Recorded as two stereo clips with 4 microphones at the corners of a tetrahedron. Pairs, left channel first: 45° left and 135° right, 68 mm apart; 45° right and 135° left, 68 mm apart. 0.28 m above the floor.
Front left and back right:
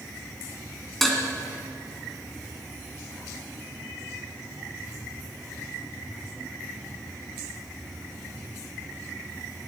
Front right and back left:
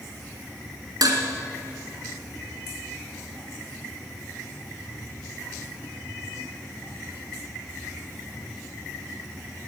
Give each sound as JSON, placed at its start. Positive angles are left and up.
{"t": 1.0, "sound": "dishes clattering", "azimuth_deg": 130, "distance_m": 2.0}